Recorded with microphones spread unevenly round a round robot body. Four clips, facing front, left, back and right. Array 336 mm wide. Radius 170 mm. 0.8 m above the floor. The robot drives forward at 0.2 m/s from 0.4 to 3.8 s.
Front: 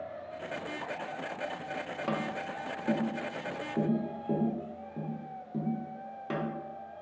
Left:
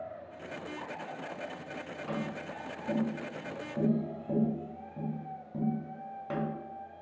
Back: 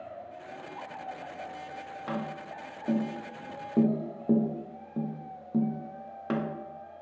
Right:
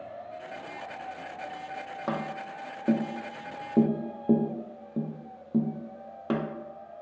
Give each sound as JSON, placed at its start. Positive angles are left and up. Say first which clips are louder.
{"t": 2.1, "sound": "tapping", "louder": "right 4 dB, front 1 dB", "azimuth_deg": -65, "distance_m": 0.5}